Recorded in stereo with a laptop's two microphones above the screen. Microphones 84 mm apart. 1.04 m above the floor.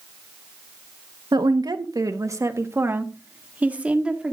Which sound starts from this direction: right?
A woman speaking, at 1.3 s.